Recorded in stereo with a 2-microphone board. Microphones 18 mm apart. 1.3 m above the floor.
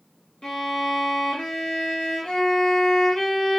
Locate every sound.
0.4 s a violin: 40° left (ahead or behind), 1.6 m